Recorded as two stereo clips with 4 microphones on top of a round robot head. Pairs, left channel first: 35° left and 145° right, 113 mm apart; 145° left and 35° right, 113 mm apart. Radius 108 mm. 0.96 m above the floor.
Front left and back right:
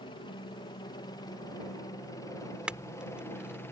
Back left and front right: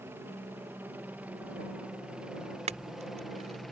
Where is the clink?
65° right.